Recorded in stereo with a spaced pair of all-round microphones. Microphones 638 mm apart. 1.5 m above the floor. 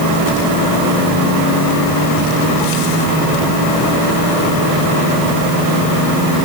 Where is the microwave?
I don't hear a microwave.